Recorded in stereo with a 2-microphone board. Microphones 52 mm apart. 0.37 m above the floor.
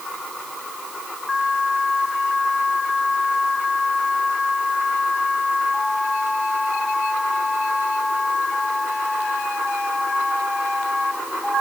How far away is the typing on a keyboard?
No typing on a keyboard in this recording.